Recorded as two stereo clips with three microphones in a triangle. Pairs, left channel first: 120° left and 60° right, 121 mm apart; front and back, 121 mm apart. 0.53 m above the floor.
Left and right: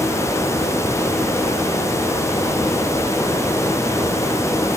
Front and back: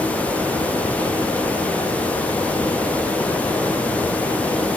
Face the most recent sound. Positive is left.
No sound to turn to.